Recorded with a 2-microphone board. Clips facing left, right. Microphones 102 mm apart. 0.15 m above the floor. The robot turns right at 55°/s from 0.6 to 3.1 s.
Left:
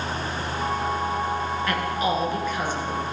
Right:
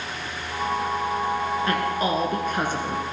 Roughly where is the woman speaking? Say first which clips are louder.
Left 1 dB; behind right.